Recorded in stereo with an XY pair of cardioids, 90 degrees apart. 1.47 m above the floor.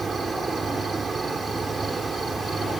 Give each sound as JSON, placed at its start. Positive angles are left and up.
{"t": 0.0, "sound": "an insect", "azimuth_deg": -35}